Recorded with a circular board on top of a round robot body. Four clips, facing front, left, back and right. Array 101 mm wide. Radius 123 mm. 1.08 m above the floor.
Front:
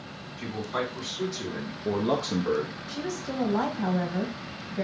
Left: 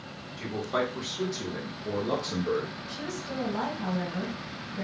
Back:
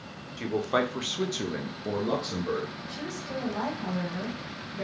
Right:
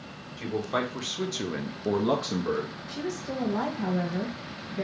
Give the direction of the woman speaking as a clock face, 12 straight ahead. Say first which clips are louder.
Right 3 dB, front 3 dB; 1 o'clock.